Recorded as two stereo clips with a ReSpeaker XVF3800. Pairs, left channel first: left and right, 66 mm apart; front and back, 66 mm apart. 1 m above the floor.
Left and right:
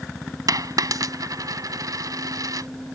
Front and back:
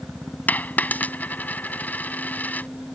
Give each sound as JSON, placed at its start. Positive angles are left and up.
{"t": 0.5, "sound": "a dropped coin", "azimuth_deg": -65}